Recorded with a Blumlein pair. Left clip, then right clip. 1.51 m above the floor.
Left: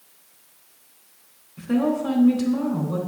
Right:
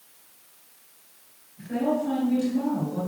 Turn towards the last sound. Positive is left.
turn(degrees=50)